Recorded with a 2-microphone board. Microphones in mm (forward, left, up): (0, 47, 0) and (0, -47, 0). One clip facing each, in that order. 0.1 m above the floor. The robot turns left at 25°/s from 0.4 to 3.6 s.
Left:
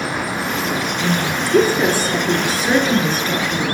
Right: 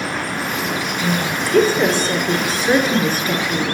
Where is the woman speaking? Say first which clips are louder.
Even; 40° left, 1.6 m; by 3.6 s 25° right, 1.6 m.